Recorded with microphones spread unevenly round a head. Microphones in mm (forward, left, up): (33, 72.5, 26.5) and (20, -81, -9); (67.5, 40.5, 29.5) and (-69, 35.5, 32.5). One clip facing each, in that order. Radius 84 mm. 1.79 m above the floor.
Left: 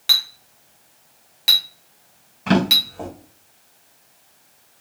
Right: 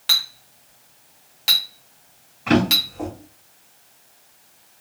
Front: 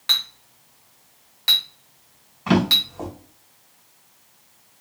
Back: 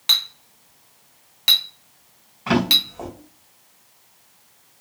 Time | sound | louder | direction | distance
0.1 | a clink | even, back 1 dB | 135° left | 0.7 m
2.5 | a drawer | right 1 dB, front 1 dB | 90° left | 2.5 m